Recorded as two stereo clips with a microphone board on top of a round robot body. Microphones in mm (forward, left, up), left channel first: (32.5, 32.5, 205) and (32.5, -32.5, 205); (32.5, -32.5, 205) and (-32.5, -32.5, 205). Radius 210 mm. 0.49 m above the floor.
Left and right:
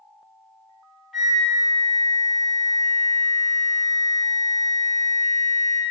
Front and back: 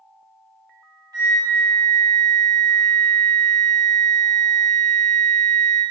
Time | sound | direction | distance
1.1 | a flute | straight behind | 1.9 m